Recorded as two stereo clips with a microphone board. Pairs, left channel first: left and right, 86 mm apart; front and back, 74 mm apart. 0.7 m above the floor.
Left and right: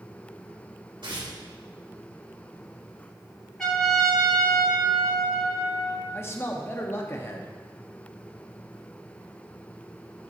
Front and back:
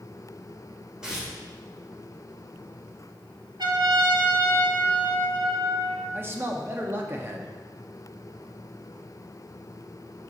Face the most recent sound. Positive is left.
turn(degrees=135)